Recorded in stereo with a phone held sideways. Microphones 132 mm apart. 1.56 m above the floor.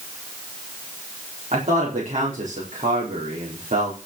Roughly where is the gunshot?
I don't hear a gunshot.